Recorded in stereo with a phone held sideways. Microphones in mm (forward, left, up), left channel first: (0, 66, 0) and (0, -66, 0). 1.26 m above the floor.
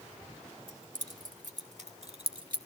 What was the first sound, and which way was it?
Keys jangling, 80° right.